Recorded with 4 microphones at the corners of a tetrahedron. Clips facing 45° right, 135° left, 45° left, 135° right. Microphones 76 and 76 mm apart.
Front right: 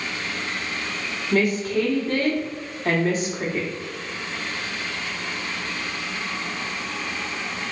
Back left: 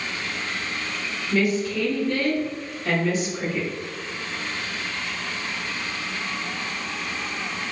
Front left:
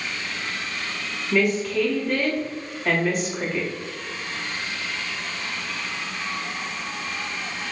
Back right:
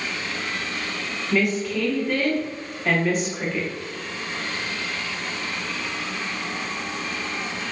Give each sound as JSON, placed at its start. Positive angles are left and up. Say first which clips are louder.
{"t": 1.3, "sound": "a woman speaking", "louder": "front right 2 dB, front left 2 dB", "azimuth_deg": -45, "distance_m": 1.3}